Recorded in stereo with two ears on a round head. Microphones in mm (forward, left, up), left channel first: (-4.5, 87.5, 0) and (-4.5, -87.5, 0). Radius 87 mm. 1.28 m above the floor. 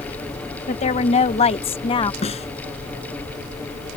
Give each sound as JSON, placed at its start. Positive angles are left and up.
{"t": 0.7, "sound": "a woman speaking", "side_deg": 35}
{"t": 2.2, "sound": "a snare drum", "side_deg": 35}